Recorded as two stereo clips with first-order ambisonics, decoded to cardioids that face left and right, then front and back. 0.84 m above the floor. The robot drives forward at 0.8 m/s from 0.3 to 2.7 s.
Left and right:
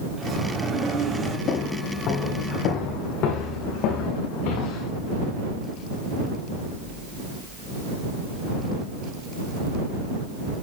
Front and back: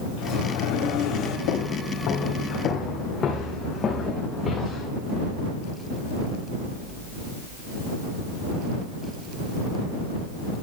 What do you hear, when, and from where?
0.2 s a sliding door: 15° right, 4 m; by 1.4 s 20° right, 3.5 m
1.5 s footsteps: 35° left, 6 m; by 4.9 s 80° left, 5 m